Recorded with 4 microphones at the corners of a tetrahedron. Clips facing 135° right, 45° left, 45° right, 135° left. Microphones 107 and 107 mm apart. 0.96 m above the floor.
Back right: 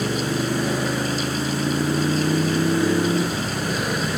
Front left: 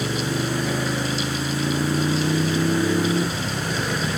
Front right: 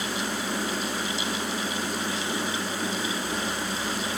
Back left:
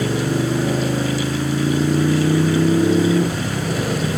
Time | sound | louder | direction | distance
0.0 | a motorcycle | back right 2 dB, back left 11 dB | 145° left | ?